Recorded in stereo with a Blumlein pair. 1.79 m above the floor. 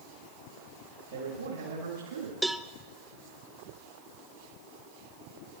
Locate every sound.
1.1 s a man speaking: 65° right, 4 m
2.4 s a cowbell: 5° right, 0.5 m